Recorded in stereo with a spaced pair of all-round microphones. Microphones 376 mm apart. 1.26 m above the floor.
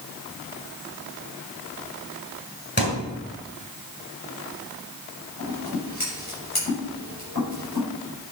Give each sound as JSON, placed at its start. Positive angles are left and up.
{"t": 2.8, "sound": "a thud", "side_deg": 25, "distance_m": 4.5}
{"t": 5.4, "sound": "scissors", "side_deg": 70, "distance_m": 6.0}